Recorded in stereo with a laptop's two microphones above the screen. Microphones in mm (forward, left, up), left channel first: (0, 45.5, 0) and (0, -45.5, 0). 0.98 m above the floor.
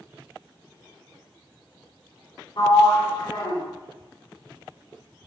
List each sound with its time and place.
2.6 s a sliding door: 60° left (ahead or behind), 1.4 m